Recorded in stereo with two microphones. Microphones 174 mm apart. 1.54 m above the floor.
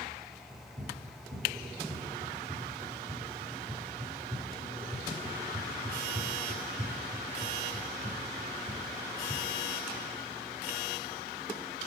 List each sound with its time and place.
0.5 s running footsteps: 50° right (ahead or behind), 4.5 m; by 9.4 s 55° right (ahead or behind), 9 m